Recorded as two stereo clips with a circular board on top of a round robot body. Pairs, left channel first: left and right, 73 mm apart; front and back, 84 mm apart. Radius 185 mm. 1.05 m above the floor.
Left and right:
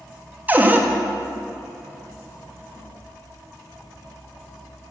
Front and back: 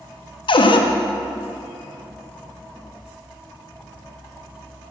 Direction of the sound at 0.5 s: 25° right.